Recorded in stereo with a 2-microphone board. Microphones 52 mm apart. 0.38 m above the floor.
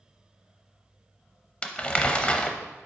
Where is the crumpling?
25° left (ahead or behind), 0.6 m.